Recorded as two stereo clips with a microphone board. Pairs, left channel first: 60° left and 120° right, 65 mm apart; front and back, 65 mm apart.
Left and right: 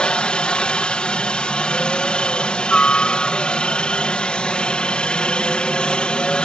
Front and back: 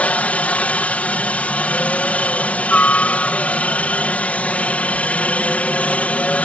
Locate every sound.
0.0 s a helicopter: 15° left